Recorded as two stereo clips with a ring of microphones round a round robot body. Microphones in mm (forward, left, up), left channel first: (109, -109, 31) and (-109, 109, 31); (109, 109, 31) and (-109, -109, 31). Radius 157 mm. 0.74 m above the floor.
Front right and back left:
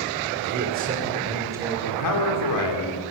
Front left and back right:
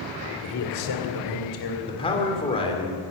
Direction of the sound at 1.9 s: 30° right.